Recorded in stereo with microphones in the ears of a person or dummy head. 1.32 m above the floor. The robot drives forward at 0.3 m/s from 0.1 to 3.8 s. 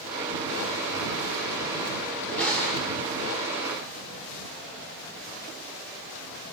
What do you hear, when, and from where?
2.4 s crushing: 5° left (ahead or behind), 1.7 m